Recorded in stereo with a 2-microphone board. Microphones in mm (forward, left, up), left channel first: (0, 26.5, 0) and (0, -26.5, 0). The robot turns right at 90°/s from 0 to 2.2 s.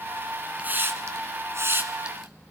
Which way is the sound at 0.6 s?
25° right (ahead or behind).